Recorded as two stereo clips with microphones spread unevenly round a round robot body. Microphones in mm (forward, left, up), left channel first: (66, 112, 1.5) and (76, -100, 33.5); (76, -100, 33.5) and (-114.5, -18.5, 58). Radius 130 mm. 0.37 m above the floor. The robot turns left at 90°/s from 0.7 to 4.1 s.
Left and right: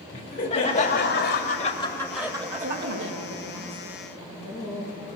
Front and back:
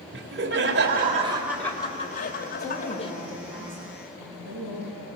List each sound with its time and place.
0.1 s laughter: 140° left, 2 m; by 3.1 s 80° right, 2 m
2.6 s a woman speaking: 75° right, 8 m; by 5.1 s 145° left, 8 m